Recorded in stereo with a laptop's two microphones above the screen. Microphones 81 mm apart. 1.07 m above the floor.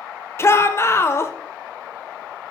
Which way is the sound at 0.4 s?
35° left (ahead or behind).